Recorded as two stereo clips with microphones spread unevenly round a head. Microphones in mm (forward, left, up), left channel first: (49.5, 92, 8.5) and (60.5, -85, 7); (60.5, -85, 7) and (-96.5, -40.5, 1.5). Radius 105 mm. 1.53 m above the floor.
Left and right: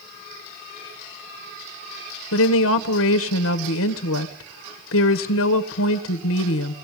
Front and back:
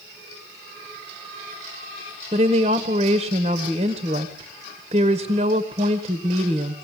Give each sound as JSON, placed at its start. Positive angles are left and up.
{"t": 2.3, "sound": "a woman speaking", "azimuth_deg": 95, "distance_m": 1.5}